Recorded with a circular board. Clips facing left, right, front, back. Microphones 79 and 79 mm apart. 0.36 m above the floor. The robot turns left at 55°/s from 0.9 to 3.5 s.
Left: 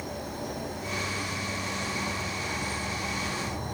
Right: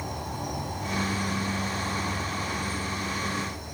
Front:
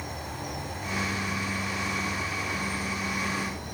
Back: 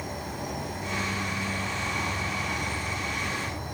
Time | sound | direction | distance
0.0 | an insect | 90° right | 1.0 m